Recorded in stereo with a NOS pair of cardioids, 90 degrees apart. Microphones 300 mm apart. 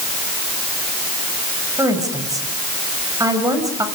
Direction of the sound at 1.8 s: 10° right.